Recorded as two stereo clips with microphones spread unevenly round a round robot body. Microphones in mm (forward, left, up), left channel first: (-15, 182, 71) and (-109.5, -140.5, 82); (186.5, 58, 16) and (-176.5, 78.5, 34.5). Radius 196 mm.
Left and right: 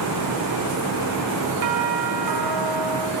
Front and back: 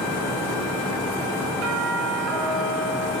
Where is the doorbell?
130° right, 5 m.